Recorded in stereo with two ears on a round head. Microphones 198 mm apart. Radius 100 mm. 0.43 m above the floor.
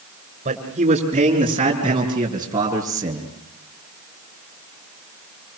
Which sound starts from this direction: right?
A man speaking, at 0.5 s.